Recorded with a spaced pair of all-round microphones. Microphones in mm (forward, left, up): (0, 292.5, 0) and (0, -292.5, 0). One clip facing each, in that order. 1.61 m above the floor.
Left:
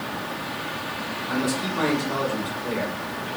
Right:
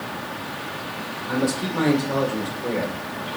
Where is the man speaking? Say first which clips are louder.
Right 3 dB; 80° right, 7.5 m.